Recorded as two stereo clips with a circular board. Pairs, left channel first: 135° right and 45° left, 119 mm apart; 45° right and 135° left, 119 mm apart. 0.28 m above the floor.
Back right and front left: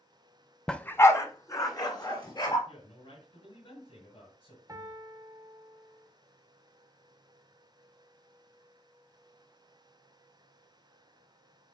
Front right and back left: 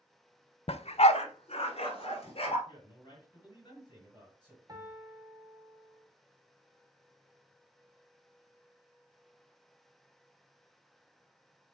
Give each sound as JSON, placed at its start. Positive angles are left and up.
{"t": 0.7, "sound": "a dog barking", "azimuth_deg": -50, "distance_m": 0.5}
{"t": 2.7, "sound": "a man speaking", "azimuth_deg": -95, "distance_m": 4.5}
{"t": 4.7, "sound": "a piano", "azimuth_deg": 95, "distance_m": 1.3}